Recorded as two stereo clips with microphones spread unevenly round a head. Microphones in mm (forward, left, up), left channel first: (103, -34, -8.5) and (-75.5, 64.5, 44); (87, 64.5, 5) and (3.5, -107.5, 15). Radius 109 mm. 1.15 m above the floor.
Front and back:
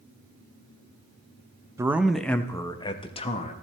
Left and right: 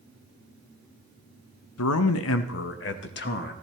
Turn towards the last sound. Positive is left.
turn(degrees=30)